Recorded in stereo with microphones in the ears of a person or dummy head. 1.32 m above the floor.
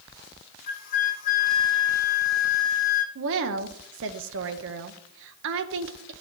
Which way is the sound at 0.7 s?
45° left (ahead or behind).